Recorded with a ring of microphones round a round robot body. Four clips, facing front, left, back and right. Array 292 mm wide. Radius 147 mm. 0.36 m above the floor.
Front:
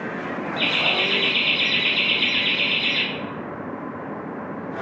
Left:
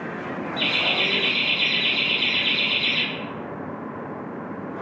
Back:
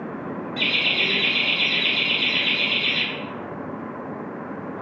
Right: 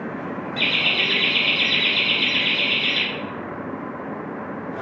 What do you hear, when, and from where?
0.6 s laughter: 110° right, 1.5 m; by 3.0 s 5° right, 2.5 m